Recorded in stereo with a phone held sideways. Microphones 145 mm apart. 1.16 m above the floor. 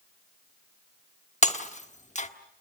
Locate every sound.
1.4 s breaking glass: 55° left (ahead or behind), 1.3 m